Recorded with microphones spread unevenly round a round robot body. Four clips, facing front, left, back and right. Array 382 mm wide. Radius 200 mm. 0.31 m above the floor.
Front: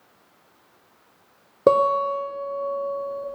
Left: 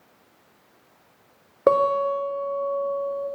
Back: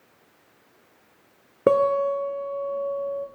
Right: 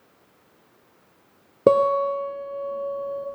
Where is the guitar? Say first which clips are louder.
Right 1 dB, front 1 dB; 65° right, 1.3 m.